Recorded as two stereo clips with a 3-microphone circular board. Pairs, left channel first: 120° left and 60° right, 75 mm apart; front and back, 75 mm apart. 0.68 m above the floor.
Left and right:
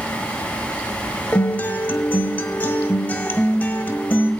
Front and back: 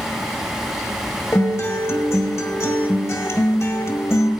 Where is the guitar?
50° left, 1.3 m.